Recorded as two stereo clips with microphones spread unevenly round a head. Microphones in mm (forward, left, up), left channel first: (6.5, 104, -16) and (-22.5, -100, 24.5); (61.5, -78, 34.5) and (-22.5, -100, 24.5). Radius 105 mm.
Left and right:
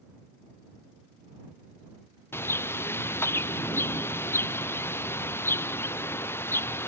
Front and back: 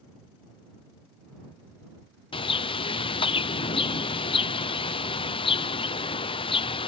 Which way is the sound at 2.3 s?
Straight ahead.